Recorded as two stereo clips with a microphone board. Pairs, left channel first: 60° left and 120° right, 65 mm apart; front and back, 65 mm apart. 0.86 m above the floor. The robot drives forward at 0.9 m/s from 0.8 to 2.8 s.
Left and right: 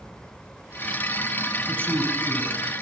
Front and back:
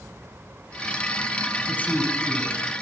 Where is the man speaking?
65° right, 6 m; by 2.5 s 70° right, 6 m.